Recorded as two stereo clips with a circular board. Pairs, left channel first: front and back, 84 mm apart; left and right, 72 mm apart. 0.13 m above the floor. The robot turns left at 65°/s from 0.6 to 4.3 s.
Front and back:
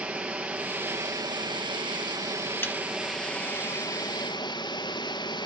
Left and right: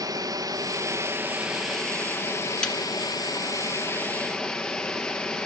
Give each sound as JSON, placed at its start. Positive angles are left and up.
{"t": 0.0, "sound": "running water", "azimuth_deg": -105, "distance_m": 1.6}
{"t": 2.6, "sound": "a snare drum", "azimuth_deg": 25, "distance_m": 1.5}